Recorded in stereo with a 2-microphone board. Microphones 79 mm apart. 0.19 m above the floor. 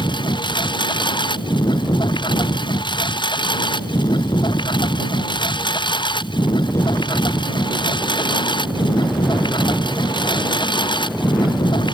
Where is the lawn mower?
85° left.